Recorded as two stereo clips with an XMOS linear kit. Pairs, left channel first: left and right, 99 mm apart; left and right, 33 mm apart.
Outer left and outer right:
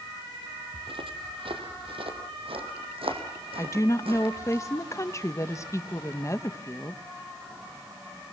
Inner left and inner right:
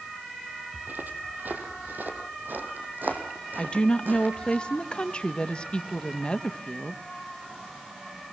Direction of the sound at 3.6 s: 30° left (ahead or behind).